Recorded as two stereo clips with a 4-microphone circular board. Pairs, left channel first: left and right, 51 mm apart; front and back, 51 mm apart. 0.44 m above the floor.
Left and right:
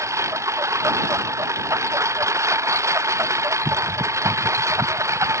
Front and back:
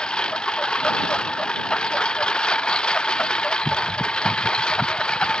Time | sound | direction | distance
0.0 | a lawn mower | 70° right | ?